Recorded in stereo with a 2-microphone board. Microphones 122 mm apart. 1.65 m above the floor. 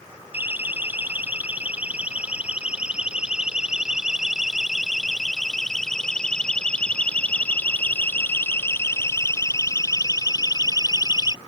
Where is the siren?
15° right (ahead or behind); by 11.4 s 40° left (ahead or behind).